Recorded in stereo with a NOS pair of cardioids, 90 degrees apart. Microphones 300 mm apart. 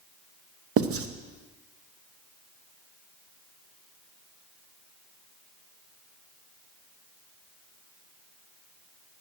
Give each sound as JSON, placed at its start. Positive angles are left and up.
{"t": 0.8, "sound": "writing", "azimuth_deg": -50, "distance_m": 1.1}